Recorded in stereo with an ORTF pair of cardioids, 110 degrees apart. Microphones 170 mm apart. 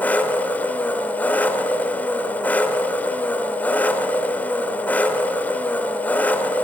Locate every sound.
0.0 s an engine running: 10° left, 1.9 m